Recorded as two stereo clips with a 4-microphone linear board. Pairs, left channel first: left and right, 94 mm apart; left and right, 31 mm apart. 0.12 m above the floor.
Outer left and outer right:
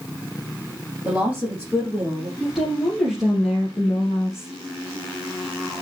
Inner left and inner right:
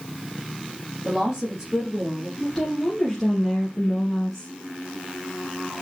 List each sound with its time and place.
1.1 s a woman speaking: 15° right (ahead or behind), 4.5 m; by 2.3 s 20° right (ahead or behind), 4 m
2.4 s a woman speaking: 5° right (ahead or behind), 3 m